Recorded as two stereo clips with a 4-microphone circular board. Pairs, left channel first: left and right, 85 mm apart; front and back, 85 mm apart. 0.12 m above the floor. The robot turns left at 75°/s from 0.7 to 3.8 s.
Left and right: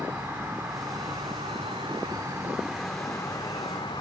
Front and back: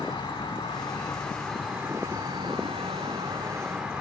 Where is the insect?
30° right, 8.5 m; by 4.0 s 100° left, 8.5 m.